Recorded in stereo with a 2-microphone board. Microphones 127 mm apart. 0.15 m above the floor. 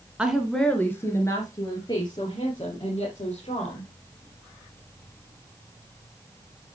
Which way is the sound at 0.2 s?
10° right (ahead or behind).